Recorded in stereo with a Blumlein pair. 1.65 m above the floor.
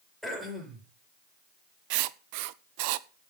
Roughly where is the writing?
Ahead right.